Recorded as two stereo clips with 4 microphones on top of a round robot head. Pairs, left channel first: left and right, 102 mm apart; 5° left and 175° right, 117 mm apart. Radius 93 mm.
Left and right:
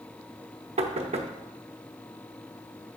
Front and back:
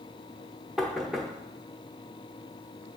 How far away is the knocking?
About 0.7 m.